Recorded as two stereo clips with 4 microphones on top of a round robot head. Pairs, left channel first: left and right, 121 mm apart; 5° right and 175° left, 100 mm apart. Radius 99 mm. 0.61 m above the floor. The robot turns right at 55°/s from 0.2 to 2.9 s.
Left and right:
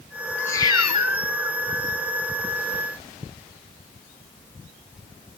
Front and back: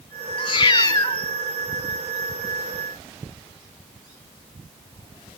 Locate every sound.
0.4 s a cat meowing: 10° left, 0.8 m; by 1.2 s 55° left, 0.8 m